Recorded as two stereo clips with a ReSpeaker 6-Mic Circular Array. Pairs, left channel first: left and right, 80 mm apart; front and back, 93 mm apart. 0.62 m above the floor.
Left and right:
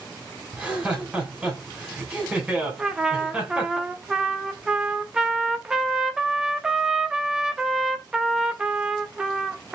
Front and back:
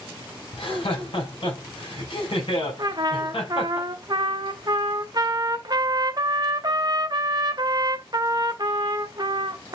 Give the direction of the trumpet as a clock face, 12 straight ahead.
6 o'clock.